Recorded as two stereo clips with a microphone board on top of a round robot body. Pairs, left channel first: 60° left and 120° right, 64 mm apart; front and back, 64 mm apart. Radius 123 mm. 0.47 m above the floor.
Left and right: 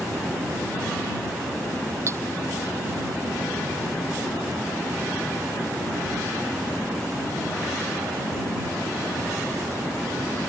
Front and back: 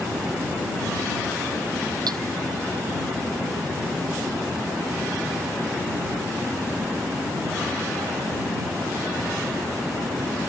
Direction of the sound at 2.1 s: 165° right.